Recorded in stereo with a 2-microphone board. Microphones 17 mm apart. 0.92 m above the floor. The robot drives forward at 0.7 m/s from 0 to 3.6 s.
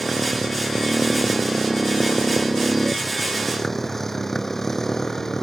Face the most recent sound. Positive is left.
turn(degrees=20)  # may be behind; listen again after turning